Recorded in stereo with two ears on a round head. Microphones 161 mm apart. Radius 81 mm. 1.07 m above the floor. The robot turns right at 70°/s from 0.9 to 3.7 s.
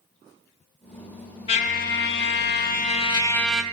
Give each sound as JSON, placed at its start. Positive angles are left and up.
{"t": 1.5, "sound": "a trumpet", "azimuth_deg": 35, "distance_m": 0.9}